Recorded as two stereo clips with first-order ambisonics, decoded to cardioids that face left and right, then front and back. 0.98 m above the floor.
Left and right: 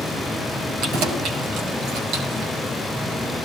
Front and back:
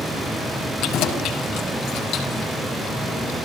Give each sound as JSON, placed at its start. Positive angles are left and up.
{"t": 0.8, "sound": "keys jangling", "azimuth_deg": -45, "distance_m": 5.0}